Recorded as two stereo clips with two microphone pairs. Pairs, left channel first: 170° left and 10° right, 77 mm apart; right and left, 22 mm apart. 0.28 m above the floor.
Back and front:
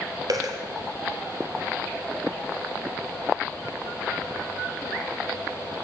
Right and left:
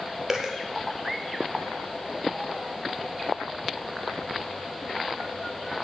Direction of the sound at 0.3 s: 25° left.